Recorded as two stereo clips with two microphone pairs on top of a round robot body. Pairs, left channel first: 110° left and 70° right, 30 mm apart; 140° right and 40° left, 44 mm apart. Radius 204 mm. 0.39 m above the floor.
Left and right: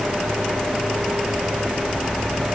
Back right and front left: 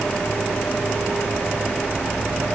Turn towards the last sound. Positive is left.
No sound to turn to.